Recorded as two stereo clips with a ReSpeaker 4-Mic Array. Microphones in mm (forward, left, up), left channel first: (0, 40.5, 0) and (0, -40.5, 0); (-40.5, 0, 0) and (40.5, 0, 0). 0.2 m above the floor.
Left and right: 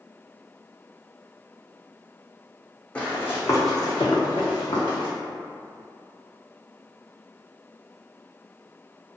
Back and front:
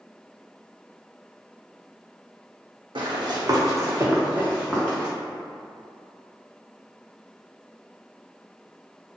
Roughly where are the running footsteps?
Ahead.